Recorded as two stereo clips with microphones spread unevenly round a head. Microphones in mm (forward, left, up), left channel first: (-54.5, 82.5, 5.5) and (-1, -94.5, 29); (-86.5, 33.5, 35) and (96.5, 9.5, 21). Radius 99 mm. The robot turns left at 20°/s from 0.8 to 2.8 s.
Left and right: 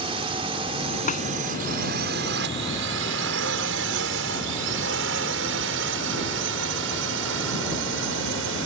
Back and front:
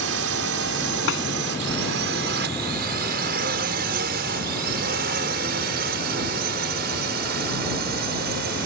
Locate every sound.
0.0 s a drone: 10° right; by 8.7 s 45° right
1.1 s a snare drum: 155° left